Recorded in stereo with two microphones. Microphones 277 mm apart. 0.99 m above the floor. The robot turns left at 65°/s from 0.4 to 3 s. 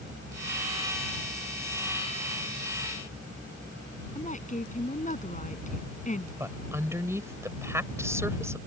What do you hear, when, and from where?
4.2 s a woman speaking: 25° left (ahead or behind)
6.4 s a woman speaking: 10° right (ahead or behind)